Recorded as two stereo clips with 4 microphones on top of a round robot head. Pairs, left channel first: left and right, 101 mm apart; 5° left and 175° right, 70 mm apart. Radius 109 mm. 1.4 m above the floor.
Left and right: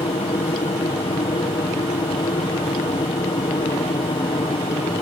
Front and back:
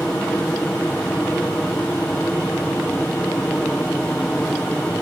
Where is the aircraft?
75° left.